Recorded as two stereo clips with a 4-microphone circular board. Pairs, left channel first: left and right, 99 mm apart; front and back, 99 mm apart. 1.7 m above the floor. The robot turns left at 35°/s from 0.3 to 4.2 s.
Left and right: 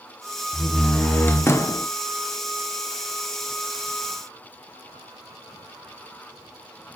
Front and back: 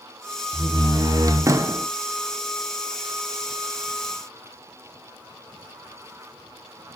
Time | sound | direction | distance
0.5 | a door slam | 175° left | 0.8 m